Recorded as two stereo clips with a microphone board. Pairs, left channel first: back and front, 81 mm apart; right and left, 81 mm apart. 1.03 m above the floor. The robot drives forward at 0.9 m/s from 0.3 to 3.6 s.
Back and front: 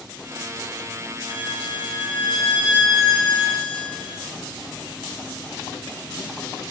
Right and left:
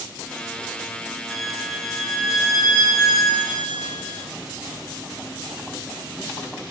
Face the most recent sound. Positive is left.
turn(degrees=180)